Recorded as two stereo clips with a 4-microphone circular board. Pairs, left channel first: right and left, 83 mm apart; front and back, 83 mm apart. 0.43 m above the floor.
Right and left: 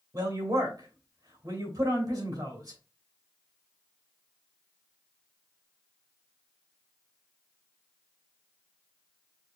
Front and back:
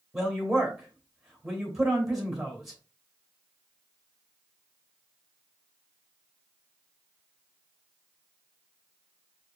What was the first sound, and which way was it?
A woman speaking, 90° left.